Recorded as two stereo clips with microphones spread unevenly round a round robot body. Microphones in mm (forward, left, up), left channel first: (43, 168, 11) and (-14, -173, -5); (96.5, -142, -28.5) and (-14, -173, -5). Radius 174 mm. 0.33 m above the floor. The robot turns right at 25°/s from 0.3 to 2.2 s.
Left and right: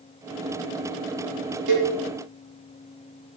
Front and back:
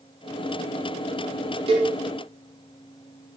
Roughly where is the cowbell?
Behind right.